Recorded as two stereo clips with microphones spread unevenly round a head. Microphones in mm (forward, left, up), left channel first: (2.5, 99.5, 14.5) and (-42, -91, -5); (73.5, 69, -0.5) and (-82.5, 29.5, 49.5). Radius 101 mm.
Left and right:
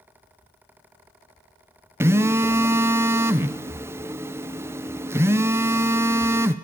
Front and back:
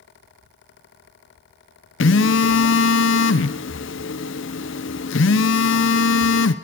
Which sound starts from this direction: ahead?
A phone buzzing, at 2.0 s.